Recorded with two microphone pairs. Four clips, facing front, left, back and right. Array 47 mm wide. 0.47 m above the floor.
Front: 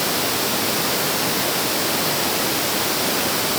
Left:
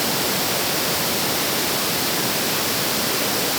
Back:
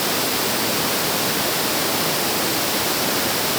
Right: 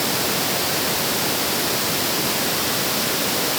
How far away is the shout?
I don't hear a shout.